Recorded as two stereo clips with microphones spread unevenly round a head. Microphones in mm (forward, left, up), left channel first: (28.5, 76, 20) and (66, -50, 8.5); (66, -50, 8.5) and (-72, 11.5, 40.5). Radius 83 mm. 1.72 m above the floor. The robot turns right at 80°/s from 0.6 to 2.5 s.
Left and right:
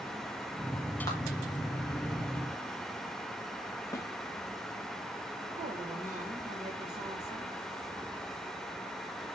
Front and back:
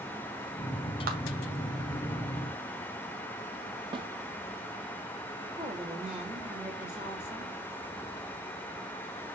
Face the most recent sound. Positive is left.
turn(degrees=-125)